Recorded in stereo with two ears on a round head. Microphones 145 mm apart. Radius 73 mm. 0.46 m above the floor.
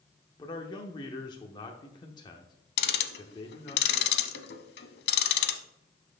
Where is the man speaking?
25° left (ahead or behind), 0.8 m.